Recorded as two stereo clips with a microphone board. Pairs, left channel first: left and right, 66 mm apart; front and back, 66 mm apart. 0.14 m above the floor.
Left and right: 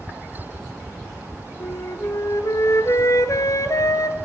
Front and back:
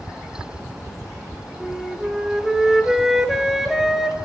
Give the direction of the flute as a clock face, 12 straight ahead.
9 o'clock.